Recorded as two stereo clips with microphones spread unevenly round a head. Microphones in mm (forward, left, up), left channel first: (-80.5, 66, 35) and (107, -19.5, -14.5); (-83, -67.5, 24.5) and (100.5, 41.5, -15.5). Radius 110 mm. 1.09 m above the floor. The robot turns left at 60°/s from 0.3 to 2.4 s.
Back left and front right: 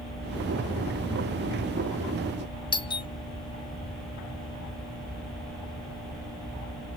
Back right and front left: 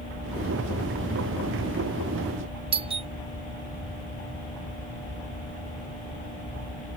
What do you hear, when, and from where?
2.7 s a doorbell: 85° left